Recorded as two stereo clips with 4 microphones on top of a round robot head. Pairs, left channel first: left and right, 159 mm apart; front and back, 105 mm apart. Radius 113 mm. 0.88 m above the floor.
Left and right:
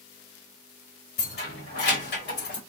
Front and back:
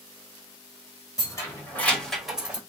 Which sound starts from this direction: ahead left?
Keys jangling, at 1.2 s.